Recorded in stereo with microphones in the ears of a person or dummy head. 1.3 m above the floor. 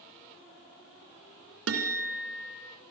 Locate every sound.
1.7 s a guitar: 65° right (ahead or behind), 2.5 m